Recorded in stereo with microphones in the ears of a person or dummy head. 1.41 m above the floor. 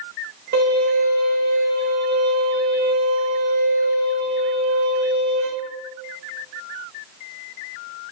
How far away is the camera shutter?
I don't hear a camera shutter.